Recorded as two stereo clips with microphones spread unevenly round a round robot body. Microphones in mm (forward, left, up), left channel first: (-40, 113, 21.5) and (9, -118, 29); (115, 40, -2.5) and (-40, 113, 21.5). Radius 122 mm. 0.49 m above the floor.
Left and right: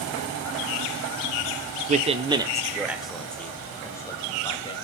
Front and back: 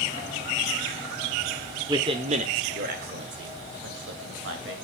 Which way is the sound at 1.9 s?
130° right.